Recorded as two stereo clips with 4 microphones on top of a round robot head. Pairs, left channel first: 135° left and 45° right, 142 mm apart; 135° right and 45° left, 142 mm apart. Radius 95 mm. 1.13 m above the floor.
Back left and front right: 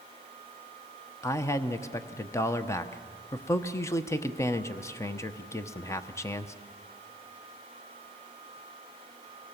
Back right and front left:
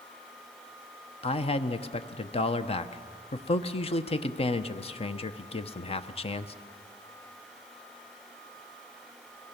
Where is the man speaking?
160° right, 1.0 m.